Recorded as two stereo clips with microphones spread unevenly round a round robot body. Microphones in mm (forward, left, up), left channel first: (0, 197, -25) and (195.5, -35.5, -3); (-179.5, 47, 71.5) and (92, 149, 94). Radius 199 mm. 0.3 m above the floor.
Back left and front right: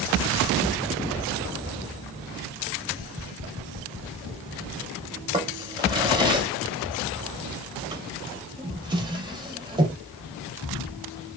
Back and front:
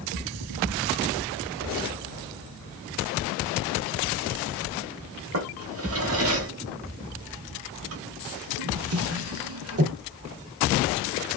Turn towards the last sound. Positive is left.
turn(degrees=25)